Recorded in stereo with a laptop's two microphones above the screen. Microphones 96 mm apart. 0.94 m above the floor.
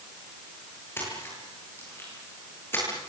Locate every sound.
1.0 s a splash: 25° left (ahead or behind), 8.5 m